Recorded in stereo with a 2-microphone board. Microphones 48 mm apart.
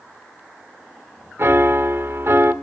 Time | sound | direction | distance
1.4 | a piano | 55° right (ahead or behind) | 1.4 m